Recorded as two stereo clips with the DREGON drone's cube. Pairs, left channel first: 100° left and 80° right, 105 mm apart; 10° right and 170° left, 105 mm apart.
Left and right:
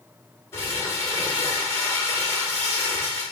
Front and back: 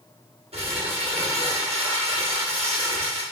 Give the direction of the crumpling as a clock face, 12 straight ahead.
7 o'clock.